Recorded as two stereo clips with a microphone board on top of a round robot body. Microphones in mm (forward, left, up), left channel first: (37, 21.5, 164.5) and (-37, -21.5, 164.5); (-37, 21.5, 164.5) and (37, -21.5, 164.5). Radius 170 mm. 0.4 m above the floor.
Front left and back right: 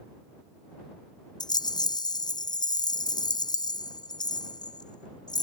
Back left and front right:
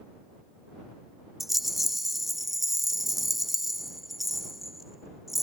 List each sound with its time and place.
1.4 s a rattle: 55° left